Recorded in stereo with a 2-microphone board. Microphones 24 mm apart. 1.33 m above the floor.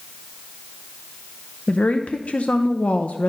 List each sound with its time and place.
1.7 s a woman speaking: 70° left (ahead or behind), 0.6 m